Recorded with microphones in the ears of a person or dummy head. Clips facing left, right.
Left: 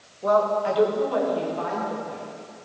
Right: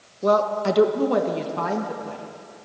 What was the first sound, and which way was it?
A woman speaking, 35° right (ahead or behind).